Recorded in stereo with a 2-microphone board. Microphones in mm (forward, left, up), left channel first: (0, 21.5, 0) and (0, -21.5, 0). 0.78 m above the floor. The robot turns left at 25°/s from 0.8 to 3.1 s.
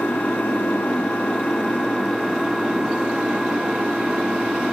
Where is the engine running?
40° left, 4.5 m; by 4.7 s 15° right, 4.5 m.